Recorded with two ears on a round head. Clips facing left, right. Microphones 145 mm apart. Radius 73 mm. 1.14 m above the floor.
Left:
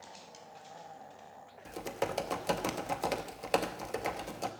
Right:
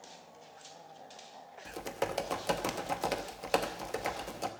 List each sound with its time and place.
1.6 s typing on a keyboard: centre (ahead or behind), 0.9 m